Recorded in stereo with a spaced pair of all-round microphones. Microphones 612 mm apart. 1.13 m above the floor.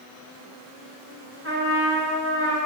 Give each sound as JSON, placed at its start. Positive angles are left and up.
{"t": 1.4, "sound": "a trumpet", "side_deg": -20, "distance_m": 2.0}